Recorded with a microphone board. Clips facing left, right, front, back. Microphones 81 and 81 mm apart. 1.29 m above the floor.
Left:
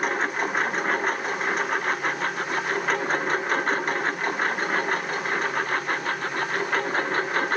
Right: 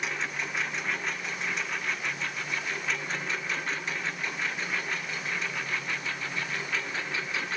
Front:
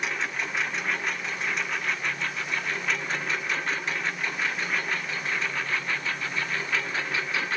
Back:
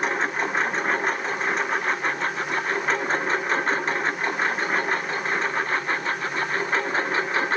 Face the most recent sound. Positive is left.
turn(degrees=130)